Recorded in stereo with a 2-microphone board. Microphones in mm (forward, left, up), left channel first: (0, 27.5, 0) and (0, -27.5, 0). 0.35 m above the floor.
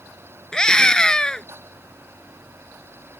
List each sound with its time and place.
0.5 s a scream: 15° left (ahead or behind)